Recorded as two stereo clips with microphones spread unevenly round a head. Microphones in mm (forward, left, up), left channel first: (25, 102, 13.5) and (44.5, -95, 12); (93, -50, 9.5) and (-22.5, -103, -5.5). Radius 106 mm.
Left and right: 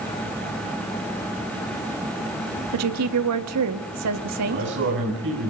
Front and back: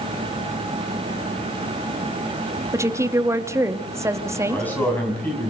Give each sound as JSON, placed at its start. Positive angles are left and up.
{"t": 2.7, "sound": "a woman speaking", "azimuth_deg": -85, "distance_m": 1.9}
{"t": 4.5, "sound": "a man speaking", "azimuth_deg": -55, "distance_m": 7.0}